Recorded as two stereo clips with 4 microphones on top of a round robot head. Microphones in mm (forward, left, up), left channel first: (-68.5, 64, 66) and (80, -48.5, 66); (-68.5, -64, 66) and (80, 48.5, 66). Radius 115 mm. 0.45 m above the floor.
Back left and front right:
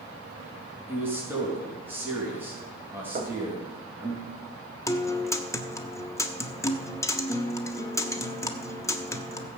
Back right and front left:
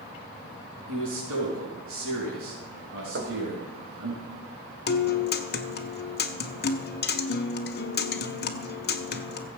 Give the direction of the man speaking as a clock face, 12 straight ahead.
11 o'clock.